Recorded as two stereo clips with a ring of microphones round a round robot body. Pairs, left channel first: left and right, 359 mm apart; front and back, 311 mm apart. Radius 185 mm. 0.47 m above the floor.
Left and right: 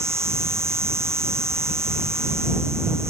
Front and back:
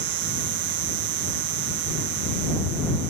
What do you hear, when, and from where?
0.0 s an insect: 175° right